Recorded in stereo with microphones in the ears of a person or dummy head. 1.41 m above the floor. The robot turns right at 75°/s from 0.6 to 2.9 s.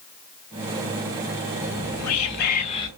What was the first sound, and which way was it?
Whispering, 65° left.